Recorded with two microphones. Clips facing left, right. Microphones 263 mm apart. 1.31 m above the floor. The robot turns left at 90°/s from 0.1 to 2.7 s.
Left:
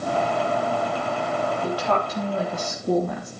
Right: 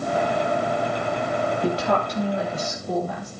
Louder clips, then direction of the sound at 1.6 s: Right 2 dB; 140° right.